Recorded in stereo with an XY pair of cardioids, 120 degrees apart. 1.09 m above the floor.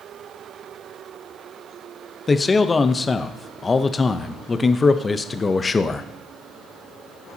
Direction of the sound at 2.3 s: 25° left.